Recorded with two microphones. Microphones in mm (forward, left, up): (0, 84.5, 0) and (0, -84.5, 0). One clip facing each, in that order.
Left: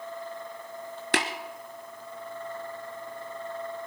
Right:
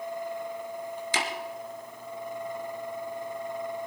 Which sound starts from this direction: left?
Tapping, at 1.1 s.